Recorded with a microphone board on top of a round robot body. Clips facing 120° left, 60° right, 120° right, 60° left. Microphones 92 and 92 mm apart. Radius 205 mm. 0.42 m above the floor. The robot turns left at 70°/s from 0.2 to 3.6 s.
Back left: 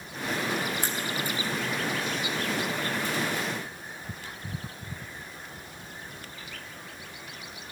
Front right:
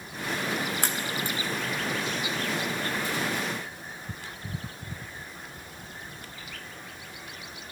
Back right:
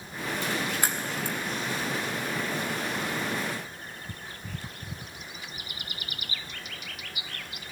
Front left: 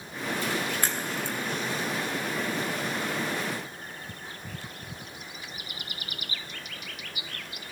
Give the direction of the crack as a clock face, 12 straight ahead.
1 o'clock.